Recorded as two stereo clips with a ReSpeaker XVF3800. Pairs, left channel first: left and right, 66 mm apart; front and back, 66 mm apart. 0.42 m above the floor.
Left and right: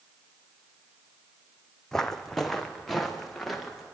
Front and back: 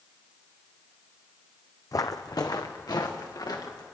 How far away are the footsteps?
About 0.9 m.